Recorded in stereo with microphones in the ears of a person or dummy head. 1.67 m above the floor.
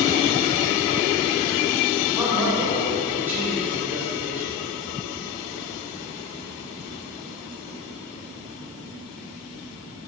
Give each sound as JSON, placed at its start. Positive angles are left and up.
{"t": 2.2, "sound": "a man speaking", "side_deg": -10, "distance_m": 2.5}